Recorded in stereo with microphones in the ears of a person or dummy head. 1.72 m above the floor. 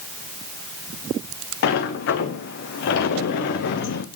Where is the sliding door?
50° left (ahead or behind), 0.7 m.